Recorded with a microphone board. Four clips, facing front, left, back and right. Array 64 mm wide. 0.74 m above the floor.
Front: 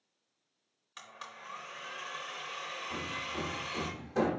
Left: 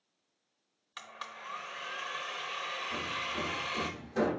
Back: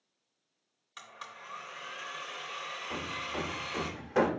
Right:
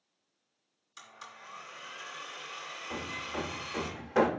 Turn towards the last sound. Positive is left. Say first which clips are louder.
# right 3 dB, back 2 dB
turn(degrees=-135)